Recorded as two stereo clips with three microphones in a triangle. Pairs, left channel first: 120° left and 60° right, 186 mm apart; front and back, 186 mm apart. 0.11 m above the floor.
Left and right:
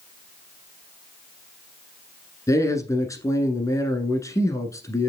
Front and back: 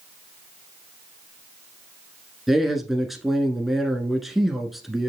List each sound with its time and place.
2.5 s a man speaking: 95° left, 1.0 m